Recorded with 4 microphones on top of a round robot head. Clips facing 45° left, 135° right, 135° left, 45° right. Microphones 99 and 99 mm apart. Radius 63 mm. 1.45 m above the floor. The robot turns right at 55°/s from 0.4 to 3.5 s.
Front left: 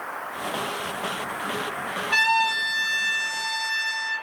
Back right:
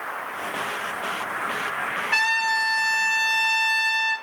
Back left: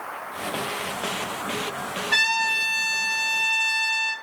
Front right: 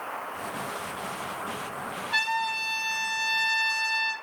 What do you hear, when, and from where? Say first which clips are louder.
2.1 s a trumpet: front left 3 dB, back left 2 dB; 115° left, 1.0 m; by 4.2 s 170° right, 1.0 m